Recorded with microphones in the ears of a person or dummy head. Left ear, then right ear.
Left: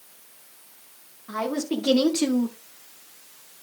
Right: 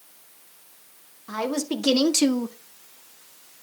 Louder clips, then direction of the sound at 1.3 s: Even; 85° right.